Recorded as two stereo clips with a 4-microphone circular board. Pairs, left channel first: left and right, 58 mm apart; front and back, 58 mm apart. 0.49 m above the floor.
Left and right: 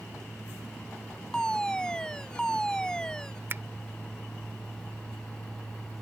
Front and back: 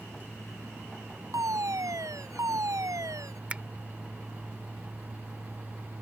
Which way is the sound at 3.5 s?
120° right.